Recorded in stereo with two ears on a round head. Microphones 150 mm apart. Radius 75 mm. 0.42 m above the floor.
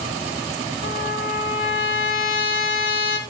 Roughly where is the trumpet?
Left.